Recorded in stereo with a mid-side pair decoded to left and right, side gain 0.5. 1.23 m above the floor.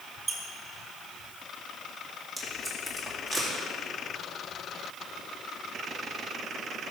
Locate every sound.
0.3 s a squeak: 35° right, 1.7 m
2.4 s tape being pulled: 10° left, 2.5 m